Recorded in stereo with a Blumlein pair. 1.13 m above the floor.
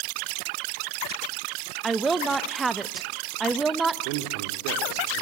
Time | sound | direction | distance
1.8 | a woman speaking | 10° right | 1.0 m
4.0 | a man speaking | 45° right | 3 m